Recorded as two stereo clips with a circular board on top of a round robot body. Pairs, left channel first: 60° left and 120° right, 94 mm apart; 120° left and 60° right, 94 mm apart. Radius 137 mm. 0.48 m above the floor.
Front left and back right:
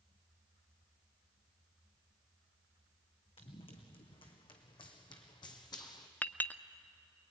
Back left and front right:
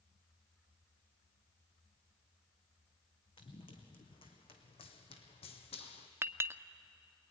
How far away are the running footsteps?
About 3 m.